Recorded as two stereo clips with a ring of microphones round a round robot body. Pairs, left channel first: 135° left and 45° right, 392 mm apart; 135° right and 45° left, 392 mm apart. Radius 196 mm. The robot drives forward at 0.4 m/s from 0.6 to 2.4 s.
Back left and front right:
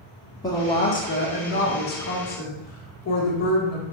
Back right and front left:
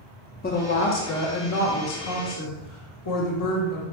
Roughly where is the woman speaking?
Behind right.